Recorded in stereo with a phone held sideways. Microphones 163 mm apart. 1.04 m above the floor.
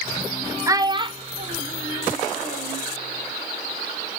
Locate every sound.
0.7 s a child speaking: 20° right (ahead or behind), 0.9 m; by 2.8 s 55° right (ahead or behind), 2.5 m